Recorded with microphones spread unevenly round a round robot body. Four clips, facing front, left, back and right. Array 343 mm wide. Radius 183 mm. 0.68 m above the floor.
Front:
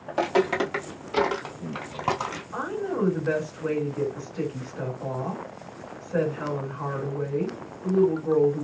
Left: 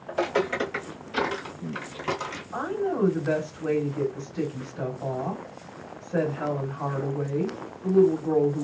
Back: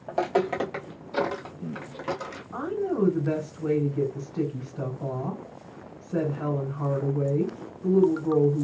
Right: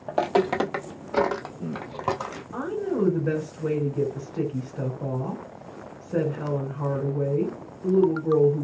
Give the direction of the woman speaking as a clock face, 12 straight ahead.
4 o'clock.